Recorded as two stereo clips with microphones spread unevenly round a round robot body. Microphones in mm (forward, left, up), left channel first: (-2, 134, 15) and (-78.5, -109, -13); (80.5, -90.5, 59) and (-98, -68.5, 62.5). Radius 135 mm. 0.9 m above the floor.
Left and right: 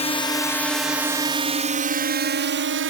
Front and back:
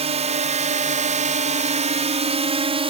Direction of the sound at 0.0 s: 135° left.